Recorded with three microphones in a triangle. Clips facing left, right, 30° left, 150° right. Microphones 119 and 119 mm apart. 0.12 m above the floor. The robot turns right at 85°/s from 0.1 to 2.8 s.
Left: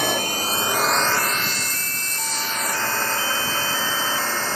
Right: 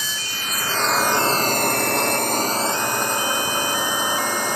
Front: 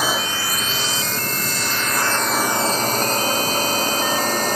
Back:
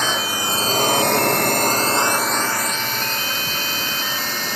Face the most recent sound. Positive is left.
turn(degrees=-15)